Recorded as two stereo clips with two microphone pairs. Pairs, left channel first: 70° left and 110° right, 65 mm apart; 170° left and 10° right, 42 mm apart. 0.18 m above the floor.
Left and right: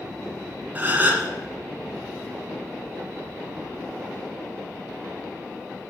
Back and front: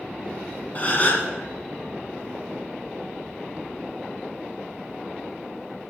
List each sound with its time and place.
0.8 s a gasp: 160° right, 2 m